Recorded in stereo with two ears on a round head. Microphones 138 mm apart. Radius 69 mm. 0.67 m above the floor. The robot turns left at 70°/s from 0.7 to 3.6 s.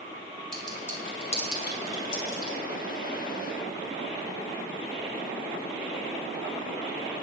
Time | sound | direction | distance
0.5 | a clink | 5° left (ahead or behind) | 3.5 m